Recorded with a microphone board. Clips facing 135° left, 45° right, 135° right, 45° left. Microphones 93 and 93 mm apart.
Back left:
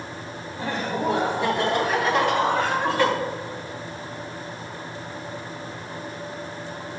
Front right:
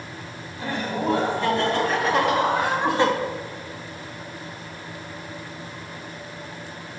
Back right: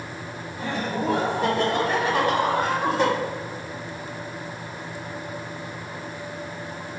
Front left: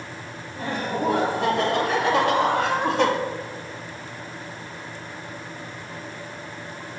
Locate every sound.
0.6 s laughter: 70° left, 2.5 m; by 3.1 s 20° left, 1.5 m